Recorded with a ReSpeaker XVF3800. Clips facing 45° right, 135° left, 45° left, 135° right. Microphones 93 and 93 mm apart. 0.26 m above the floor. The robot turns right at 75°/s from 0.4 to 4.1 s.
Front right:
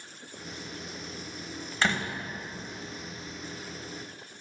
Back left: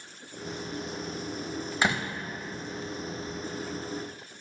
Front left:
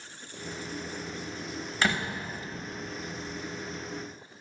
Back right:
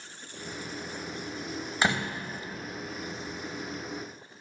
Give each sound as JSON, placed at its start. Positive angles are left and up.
{"t": 1.8, "sound": "a door slam", "azimuth_deg": -175, "distance_m": 0.7}